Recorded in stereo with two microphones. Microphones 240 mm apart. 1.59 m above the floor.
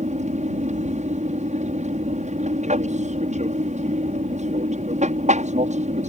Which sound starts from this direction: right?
An aircraft, at 0.0 s.